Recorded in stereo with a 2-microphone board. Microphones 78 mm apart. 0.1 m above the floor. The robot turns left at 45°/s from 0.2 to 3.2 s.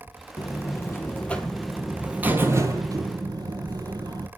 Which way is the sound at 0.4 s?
60° left.